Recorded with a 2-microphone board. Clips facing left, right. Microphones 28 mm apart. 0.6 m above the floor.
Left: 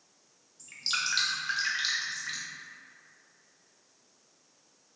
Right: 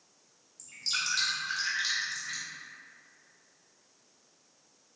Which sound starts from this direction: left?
Dripping, at 0.6 s.